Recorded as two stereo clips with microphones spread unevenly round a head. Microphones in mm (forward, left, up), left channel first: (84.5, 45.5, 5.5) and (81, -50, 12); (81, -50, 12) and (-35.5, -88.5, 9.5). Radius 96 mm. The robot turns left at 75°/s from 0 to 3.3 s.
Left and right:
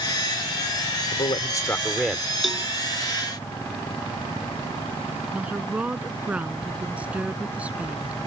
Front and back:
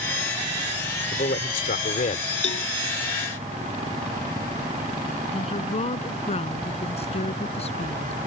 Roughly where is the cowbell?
Ahead.